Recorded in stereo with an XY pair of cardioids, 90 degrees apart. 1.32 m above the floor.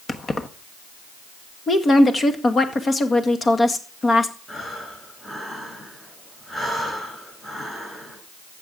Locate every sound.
0.1 s keys jangling: 40° left, 1.1 m
1.7 s a woman speaking: 45° left, 2.0 m
4.5 s breathing: 20° left, 8.5 m